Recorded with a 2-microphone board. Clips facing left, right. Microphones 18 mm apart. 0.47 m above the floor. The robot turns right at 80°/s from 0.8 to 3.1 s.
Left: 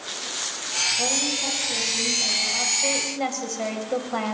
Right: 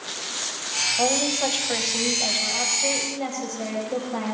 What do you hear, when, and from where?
1.0 s a woman speaking: 150° right, 2 m; by 4.3 s 20° left, 2 m